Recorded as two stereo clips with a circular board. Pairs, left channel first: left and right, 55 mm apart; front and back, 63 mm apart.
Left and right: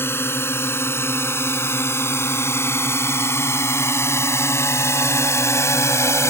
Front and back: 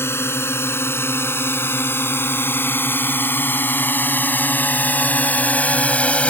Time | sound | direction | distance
0.0 | a drone | 50° left | ?